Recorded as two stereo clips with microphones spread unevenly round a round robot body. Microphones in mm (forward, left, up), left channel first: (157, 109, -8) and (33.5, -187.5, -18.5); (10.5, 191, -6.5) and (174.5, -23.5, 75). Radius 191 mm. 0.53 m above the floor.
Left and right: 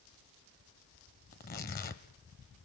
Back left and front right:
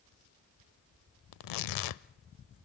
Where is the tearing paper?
135° left, 0.5 m.